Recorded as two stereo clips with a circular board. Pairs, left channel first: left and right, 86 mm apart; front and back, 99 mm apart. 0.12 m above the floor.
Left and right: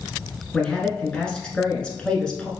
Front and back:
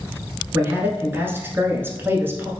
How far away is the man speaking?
About 1.1 m.